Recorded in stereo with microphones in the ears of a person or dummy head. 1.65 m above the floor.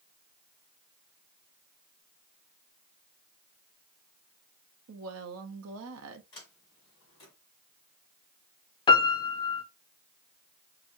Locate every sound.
4.9 s a woman speaking: 80° right, 0.7 m
6.3 s a sliding door: 20° left (ahead or behind), 1.9 m
8.9 s a piano: 25° left (ahead or behind), 0.5 m